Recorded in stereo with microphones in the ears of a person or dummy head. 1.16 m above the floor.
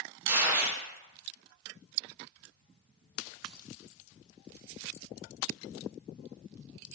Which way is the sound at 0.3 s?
10° right (ahead or behind).